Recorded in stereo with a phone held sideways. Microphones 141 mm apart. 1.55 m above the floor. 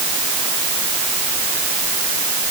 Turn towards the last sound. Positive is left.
No sound to turn to.